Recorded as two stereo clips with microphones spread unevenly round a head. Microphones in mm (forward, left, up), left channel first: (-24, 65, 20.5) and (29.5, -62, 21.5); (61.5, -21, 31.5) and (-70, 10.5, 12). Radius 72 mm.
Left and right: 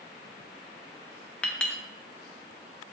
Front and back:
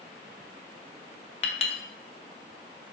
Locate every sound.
1.4 s a clink: 30° left, 0.5 m